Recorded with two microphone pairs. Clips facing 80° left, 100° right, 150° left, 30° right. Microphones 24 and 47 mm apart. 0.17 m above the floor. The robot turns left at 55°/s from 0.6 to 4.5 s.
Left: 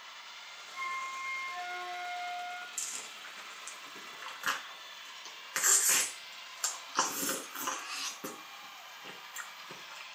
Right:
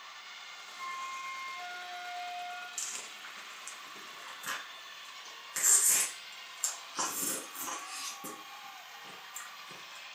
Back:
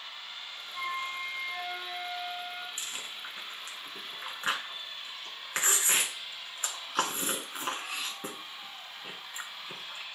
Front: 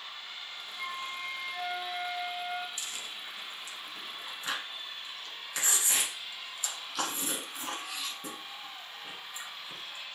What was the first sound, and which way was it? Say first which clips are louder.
A flute: left 3 dB, back 4 dB; 125° left.